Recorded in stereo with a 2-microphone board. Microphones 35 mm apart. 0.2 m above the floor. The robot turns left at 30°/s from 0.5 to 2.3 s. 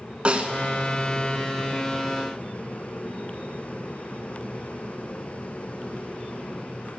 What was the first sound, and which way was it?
A snare drum, 35° right (ahead or behind).